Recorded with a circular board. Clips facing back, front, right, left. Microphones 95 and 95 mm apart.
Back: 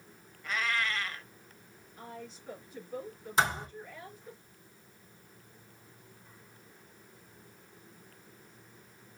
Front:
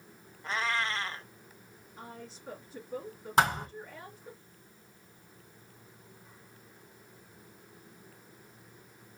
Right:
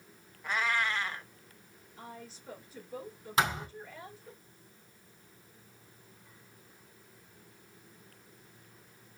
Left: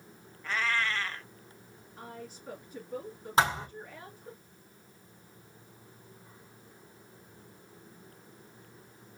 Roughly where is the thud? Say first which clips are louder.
Front 3 dB, left 3 dB; ahead left.